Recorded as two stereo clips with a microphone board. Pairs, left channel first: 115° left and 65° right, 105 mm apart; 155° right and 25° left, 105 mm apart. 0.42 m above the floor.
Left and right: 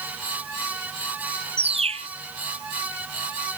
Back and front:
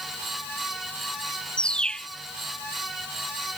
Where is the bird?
75° right.